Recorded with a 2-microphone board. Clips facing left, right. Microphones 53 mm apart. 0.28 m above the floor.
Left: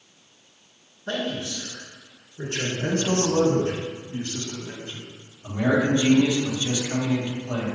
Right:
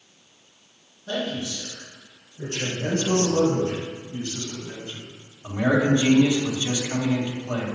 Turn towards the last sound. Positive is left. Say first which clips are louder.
# right 1 dB
turn(degrees=-15)  # may be behind; listen again after turning